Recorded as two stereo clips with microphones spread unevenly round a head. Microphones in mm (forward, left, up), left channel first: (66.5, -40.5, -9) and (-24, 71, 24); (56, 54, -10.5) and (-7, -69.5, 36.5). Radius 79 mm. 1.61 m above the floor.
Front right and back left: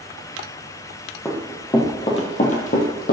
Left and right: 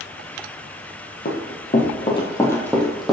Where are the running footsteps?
35° left, 2.5 m; by 3.1 s 50° right, 2.5 m.